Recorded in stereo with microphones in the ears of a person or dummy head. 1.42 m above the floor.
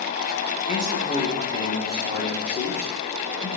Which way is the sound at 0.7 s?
40° left (ahead or behind).